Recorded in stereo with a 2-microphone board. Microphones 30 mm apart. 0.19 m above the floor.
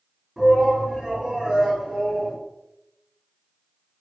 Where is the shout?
20° right (ahead or behind), 1.6 m.